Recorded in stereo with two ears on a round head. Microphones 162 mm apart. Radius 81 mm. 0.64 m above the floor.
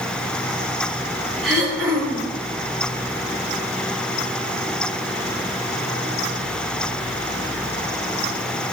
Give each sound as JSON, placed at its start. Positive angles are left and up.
{"t": 1.4, "sound": "throat clearing", "side_deg": 0, "distance_m": 7.5}